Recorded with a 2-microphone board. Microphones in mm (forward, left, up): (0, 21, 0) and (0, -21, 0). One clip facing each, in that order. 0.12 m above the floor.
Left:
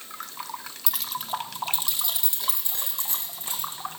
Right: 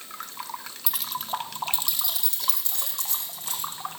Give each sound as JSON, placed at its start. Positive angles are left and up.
{"t": 0.9, "sound": "keys jangling", "side_deg": -5, "distance_m": 1.6}